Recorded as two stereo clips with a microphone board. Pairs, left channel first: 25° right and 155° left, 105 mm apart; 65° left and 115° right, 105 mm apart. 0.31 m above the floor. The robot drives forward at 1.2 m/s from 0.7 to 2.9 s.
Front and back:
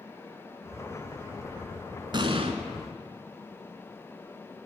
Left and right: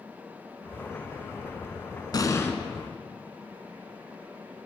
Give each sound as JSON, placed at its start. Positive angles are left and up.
{"t": 2.1, "sound": "an explosion", "azimuth_deg": 115, "distance_m": 0.9}